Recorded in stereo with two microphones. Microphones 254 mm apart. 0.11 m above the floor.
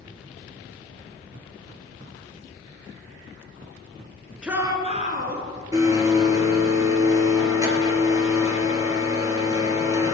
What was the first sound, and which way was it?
A shout, 5° right (ahead or behind).